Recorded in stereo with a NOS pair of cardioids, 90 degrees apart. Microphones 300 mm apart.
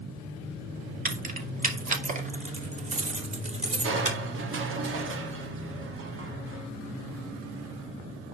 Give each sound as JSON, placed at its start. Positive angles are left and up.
{"t": 1.1, "sound": "keys jangling", "azimuth_deg": -30, "distance_m": 1.9}
{"t": 3.8, "sound": "crushing", "azimuth_deg": -45, "distance_m": 2.0}